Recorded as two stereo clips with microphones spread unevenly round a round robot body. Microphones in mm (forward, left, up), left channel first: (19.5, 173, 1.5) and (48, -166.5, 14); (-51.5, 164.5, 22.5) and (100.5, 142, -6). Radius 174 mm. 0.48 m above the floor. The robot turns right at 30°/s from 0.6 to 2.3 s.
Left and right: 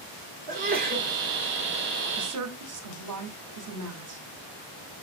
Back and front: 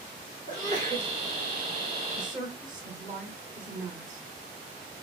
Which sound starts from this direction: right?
A woman speaking, at 2.2 s.